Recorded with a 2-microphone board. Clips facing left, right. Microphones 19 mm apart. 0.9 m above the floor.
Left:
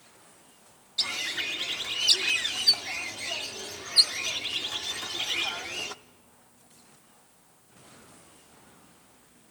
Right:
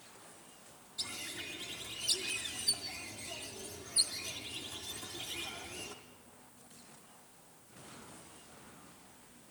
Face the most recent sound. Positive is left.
turn(degrees=55)  # may be behind; listen again after turning